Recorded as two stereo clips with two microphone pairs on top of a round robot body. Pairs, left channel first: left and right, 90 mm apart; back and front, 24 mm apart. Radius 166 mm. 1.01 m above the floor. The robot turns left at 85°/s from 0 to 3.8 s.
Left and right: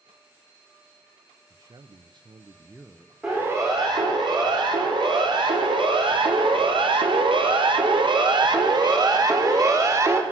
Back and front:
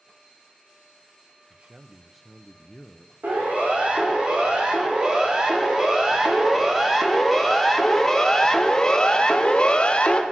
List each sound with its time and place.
1.5 s a man speaking: 45° right, 1.1 m; by 3.1 s 175° left, 1.1 m
3.2 s a siren: 5° right, 4.5 m; by 10.2 s 140° right, 3 m